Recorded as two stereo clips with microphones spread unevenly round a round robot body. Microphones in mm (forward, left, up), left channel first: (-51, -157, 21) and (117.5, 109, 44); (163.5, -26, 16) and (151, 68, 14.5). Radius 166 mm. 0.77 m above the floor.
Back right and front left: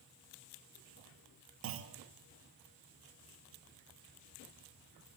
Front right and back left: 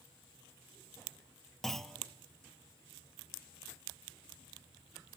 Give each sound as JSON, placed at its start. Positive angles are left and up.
{"t": 1.6, "sound": "a clunk", "azimuth_deg": 5, "distance_m": 0.5}